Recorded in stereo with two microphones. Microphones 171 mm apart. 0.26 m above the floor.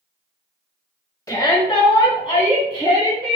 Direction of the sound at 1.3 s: 20° left (ahead or behind).